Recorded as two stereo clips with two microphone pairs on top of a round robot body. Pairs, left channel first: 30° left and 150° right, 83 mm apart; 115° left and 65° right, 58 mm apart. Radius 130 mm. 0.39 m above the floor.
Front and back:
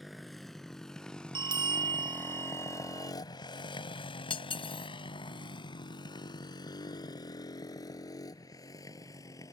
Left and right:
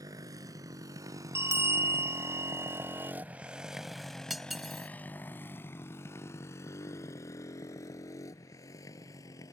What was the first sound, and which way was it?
A motorcycle, 55° right.